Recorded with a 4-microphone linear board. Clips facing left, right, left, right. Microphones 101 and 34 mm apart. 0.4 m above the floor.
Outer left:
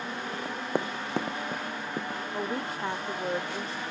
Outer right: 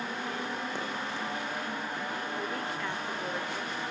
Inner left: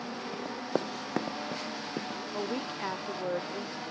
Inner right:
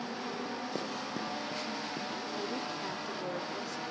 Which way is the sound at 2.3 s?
30° left (ahead or behind).